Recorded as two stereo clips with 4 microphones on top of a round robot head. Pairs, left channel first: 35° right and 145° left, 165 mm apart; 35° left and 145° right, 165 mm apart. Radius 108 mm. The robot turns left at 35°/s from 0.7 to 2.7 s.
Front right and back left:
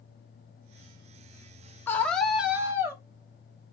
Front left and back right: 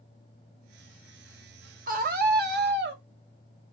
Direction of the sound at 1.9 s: 110° right.